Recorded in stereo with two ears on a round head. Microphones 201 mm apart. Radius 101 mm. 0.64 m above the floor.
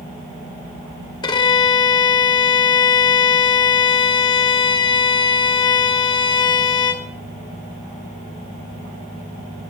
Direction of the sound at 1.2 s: 20° left (ahead or behind).